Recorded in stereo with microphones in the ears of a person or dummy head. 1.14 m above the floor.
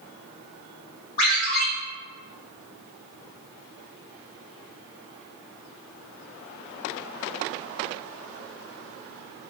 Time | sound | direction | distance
1.2 | a ringtone | 50° left (ahead or behind) | 1.7 m